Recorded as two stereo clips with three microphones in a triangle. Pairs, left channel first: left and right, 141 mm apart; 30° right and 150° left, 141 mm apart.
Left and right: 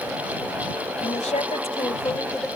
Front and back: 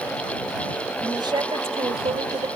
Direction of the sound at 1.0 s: 95° left.